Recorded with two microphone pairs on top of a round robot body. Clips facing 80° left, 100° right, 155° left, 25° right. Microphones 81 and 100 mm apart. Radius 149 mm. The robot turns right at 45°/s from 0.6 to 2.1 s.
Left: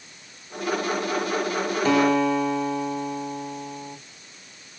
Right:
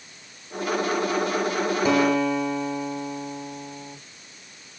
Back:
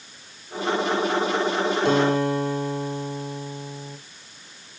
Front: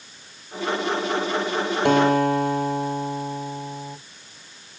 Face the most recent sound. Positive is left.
turn(degrees=-10)